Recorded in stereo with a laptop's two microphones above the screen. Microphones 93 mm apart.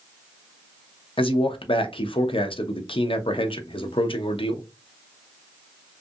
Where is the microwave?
I don't hear a microwave.